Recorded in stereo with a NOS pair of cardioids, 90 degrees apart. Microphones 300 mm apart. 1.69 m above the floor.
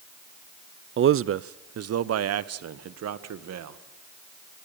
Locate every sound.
1.0 s a man speaking: 40° right, 0.6 m; by 3.8 s 60° right, 2 m